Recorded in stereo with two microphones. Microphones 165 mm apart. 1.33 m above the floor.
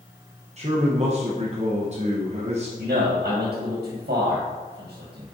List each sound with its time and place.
0.6 s a man speaking: 40° right (ahead or behind), 0.9 m
2.8 s a man speaking: 70° right (ahead or behind), 1.6 m